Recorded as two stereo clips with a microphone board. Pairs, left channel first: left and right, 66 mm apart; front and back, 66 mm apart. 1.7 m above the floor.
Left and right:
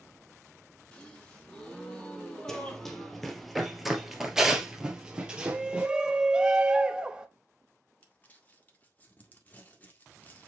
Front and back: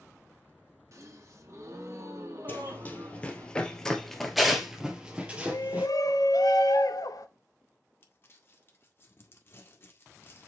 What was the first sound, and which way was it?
A gasp, 160° left.